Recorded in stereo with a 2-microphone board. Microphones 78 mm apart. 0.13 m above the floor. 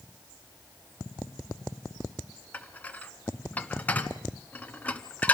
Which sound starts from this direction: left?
Dishes clattering, at 2.5 s.